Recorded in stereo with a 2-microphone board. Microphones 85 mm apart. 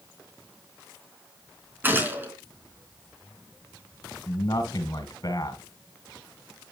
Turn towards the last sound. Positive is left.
turn(degrees=50)  # may be behind; listen again after turning